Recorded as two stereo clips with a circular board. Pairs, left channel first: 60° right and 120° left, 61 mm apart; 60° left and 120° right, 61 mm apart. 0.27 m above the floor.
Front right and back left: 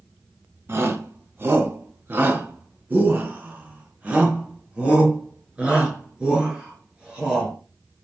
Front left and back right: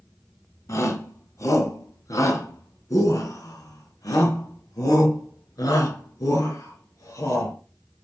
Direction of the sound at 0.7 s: 80° left.